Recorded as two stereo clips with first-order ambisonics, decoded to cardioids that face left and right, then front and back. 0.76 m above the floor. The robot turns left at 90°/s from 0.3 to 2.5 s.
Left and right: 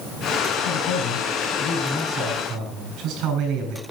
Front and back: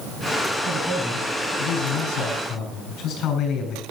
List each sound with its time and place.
0.7 s a man speaking: 115° left, 7 m; by 3.8 s 50° right, 7 m